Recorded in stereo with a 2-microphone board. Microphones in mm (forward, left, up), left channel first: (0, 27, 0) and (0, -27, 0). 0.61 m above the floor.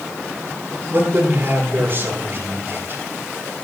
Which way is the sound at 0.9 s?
40° right (ahead or behind).